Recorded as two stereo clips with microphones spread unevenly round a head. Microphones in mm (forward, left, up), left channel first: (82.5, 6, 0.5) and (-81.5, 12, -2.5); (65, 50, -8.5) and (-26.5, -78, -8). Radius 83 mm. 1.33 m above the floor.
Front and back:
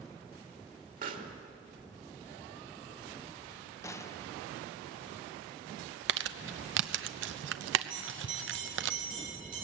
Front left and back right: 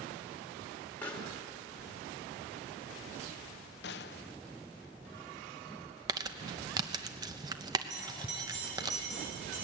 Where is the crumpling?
165° left, 0.8 m.